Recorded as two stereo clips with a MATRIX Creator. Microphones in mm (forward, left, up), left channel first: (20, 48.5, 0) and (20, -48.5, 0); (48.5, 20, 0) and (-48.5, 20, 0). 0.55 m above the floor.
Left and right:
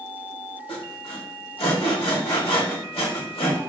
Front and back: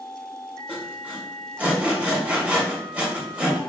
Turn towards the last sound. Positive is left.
turn(degrees=105)